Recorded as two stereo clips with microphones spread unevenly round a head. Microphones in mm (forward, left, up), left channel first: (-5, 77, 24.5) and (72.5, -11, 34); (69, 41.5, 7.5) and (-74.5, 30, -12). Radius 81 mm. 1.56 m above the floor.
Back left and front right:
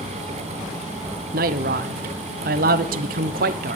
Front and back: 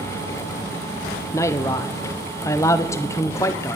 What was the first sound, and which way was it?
A man speaking, 70° right.